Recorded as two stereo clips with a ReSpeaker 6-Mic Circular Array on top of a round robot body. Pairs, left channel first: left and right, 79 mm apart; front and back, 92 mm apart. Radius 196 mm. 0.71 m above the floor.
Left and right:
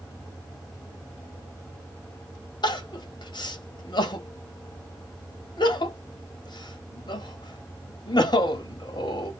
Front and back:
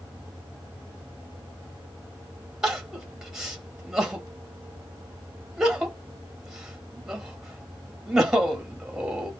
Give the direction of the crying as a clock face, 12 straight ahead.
9 o'clock.